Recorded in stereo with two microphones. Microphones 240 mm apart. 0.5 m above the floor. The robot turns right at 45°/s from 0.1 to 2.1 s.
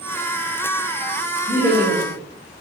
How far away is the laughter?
About 0.9 m.